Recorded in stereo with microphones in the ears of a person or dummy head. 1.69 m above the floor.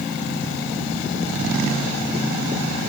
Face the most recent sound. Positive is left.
No sound to turn to.